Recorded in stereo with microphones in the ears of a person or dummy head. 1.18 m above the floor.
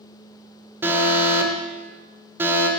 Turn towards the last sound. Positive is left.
turn(degrees=-15)  # may be behind; listen again after turning